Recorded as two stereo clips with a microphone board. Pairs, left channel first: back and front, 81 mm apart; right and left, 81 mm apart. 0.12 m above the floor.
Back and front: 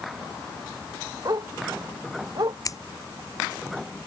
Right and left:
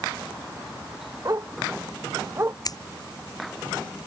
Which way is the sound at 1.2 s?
40° left.